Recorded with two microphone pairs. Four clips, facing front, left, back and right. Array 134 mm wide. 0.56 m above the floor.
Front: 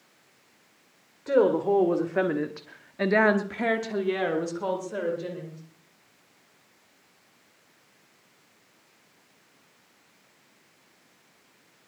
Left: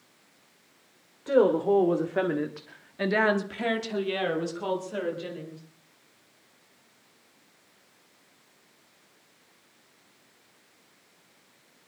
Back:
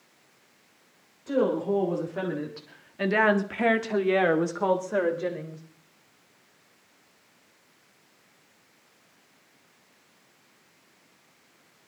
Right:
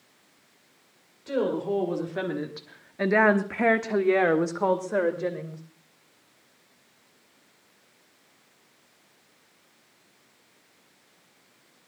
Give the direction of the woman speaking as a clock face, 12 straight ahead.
10 o'clock.